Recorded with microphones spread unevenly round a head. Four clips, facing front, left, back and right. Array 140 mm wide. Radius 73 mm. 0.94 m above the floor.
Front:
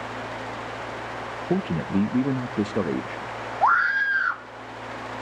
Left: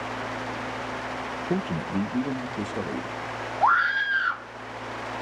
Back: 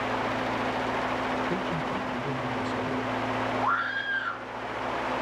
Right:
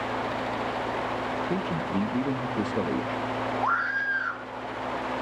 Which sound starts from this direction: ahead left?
A scream, at 3.6 s.